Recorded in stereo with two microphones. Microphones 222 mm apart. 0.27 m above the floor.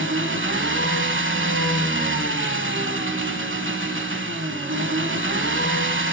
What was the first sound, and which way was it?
An engine running, 65° right (ahead or behind).